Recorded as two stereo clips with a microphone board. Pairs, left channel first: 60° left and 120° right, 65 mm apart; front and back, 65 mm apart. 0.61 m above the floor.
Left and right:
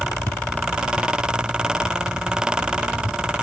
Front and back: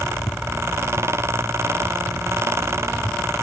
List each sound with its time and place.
Only background noise.